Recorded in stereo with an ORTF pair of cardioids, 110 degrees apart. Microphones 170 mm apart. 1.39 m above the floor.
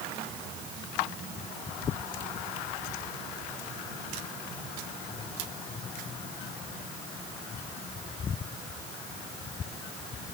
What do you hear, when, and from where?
Only background noise.